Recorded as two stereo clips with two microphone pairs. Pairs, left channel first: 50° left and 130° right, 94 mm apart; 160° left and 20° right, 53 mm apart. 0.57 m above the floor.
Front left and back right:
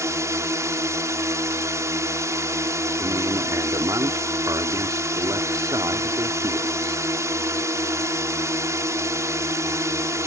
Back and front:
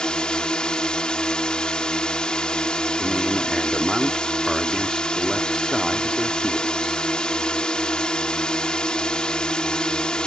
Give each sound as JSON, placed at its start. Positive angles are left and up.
{"t": 0.0, "sound": "a drone", "azimuth_deg": -140}
{"t": 3.0, "sound": "a man speaking", "azimuth_deg": -100}